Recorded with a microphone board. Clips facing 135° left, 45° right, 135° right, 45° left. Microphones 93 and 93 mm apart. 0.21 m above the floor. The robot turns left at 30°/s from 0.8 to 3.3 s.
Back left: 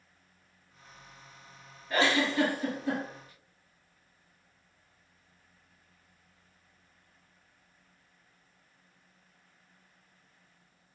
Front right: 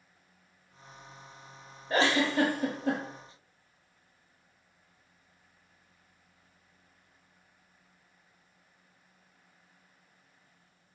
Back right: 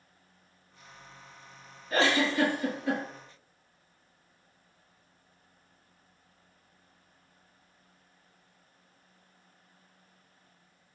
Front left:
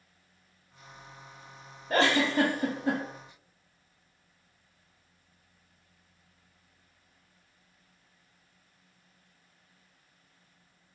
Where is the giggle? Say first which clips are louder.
Front right 1 dB, front left 1 dB; 15° left, 0.9 m; by 3.0 s 15° right, 0.9 m.